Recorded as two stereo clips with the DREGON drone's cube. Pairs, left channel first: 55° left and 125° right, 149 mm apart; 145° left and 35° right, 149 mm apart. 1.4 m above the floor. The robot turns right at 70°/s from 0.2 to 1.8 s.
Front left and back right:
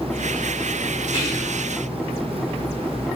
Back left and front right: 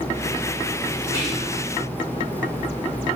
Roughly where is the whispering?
Left.